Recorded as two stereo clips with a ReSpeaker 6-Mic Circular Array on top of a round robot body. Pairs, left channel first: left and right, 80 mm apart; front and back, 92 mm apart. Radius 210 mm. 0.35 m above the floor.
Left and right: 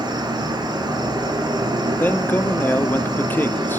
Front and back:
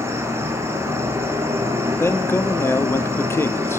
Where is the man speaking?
40° left, 1.5 m.